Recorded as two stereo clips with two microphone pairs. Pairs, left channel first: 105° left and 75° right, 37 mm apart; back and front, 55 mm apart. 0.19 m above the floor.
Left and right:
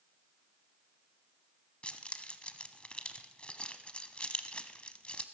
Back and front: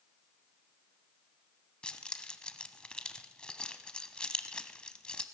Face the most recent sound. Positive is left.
turn(degrees=125)